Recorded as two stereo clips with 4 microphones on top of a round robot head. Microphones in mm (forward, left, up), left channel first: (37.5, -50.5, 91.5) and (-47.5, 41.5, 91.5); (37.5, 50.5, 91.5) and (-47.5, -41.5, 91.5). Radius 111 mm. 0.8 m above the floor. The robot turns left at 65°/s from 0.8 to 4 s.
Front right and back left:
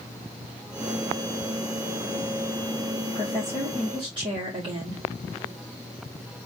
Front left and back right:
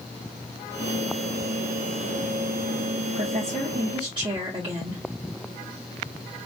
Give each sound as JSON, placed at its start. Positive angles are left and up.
{"t": 3.1, "sound": "a woman speaking", "azimuth_deg": -120, "distance_m": 2.5}